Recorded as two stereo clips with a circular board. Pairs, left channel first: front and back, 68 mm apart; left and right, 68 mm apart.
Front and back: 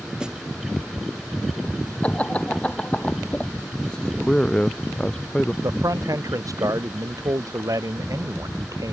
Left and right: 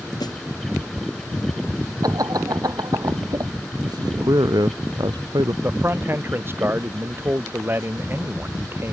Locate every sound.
0.2 s a snare drum: 100° left
2.0 s laughter: 70° right
3.8 s a man speaking: 80° right
5.6 s a man speaking: 145° right